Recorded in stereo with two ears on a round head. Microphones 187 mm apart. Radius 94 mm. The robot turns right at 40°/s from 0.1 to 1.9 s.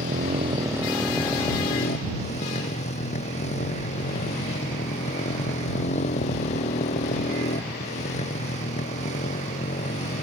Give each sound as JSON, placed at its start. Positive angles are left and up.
{"t": 0.0, "sound": "a motorcycle", "azimuth_deg": -40}